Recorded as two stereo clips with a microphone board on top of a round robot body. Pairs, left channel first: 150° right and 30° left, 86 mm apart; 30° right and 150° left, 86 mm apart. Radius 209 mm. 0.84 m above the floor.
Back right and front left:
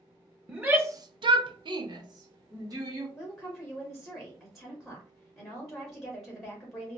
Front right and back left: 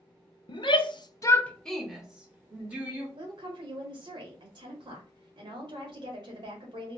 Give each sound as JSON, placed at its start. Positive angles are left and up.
{"t": 0.5, "sound": "a shout", "azimuth_deg": -45, "distance_m": 0.9}
{"t": 3.2, "sound": "a woman speaking", "azimuth_deg": 120, "distance_m": 1.7}